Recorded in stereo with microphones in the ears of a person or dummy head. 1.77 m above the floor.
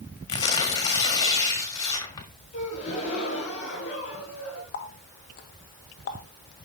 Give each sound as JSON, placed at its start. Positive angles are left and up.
{"t": 0.3, "sound": "tearing paper", "side_deg": 20, "distance_m": 1.6}
{"t": 2.5, "sound": "a gasp", "side_deg": 30, "distance_m": 5.0}
{"t": 4.7, "sound": "a running tap", "side_deg": 45, "distance_m": 1.2}